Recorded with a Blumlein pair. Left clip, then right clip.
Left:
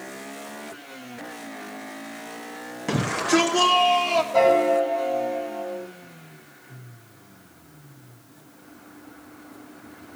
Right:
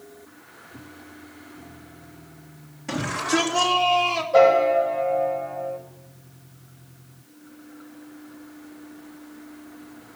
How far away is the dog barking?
No dog barking in this recording.